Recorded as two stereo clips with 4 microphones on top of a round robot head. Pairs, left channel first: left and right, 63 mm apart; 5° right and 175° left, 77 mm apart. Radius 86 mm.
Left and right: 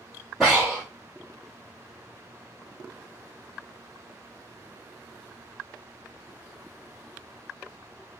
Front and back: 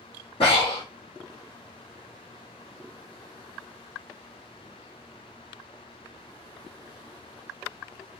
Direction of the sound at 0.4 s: 5° right.